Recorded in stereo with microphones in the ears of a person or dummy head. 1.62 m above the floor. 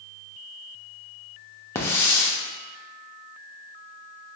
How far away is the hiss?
About 0.5 m.